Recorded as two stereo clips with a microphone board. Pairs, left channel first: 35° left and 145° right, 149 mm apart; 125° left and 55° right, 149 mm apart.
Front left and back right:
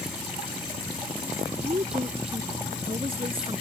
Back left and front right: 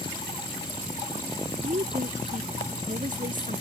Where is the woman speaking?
95° right; by 3.6 s 90° right.